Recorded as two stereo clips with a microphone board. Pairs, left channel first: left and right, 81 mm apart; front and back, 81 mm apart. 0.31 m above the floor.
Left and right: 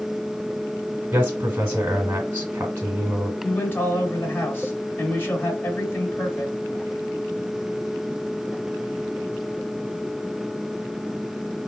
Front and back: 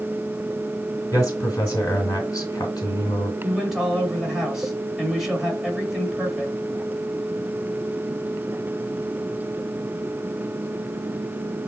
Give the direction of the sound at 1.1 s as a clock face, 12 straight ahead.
1 o'clock.